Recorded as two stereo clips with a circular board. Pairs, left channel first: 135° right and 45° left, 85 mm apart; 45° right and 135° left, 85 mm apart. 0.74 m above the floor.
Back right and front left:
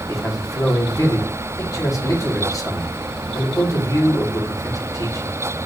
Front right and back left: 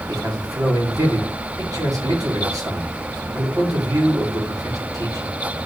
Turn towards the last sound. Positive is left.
turn(degrees=180)